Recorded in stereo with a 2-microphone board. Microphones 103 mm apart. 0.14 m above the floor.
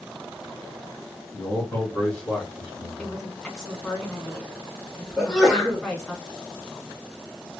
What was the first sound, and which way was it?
A man speaking, 25° left (ahead or behind).